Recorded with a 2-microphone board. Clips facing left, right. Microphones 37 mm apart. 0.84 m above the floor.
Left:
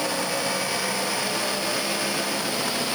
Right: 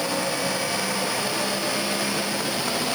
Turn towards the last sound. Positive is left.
No sound to turn to.